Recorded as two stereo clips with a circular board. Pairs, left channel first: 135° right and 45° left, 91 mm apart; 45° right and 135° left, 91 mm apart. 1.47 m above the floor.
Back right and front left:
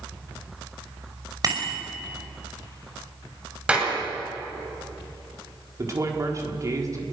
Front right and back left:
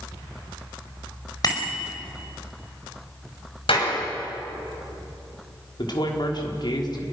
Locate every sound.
1.4 s a bicycle bell: straight ahead, 5 m
3.7 s a clap: 30° right, 9 m
5.8 s a woman speaking: 10° right, 4 m